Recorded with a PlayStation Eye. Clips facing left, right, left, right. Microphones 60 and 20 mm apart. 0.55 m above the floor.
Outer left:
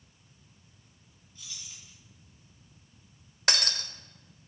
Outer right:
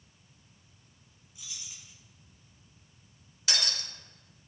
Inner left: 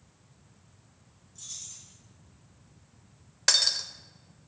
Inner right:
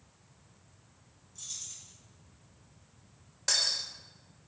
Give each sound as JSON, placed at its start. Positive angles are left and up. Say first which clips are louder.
{"t": 1.4, "sound": "keys jangling", "louder": "even, even", "side_deg": -10, "distance_m": 3.0}
{"t": 3.5, "sound": "breaking glass", "louder": "outer left 4 dB, inner left 5 dB", "side_deg": 55, "distance_m": 0.9}